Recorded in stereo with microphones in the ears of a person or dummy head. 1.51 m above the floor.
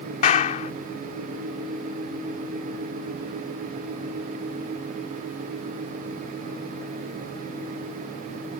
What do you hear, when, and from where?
0.2 s a clap: 50° left (ahead or behind)